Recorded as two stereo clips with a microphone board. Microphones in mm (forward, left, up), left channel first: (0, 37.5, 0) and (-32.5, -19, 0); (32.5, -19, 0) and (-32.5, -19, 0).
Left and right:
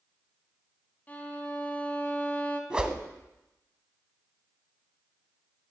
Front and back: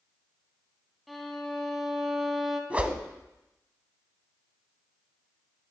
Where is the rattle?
No rattle in this recording.